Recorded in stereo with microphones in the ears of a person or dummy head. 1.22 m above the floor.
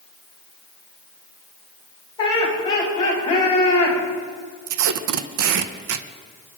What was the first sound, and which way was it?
Laughter, 20° left (ahead or behind).